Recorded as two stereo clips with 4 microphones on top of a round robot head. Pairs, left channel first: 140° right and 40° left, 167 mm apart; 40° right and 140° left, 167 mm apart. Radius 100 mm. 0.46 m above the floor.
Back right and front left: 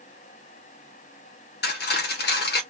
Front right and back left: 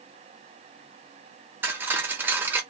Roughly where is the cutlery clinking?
Behind right.